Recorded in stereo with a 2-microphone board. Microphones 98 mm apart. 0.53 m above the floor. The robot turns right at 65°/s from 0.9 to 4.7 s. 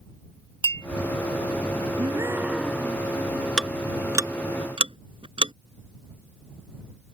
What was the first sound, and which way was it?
A clink, 60° right (ahead or behind).